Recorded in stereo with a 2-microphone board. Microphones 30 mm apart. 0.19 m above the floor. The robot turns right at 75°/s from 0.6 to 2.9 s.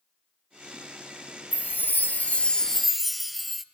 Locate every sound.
1.5 s a chime: 80° left, 0.6 m; by 3.6 s 175° right, 0.6 m